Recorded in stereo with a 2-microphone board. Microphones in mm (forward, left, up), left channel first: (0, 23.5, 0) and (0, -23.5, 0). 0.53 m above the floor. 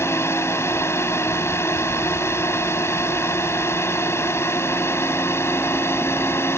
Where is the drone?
70° left (ahead or behind); by 6.6 s 65° left (ahead or behind).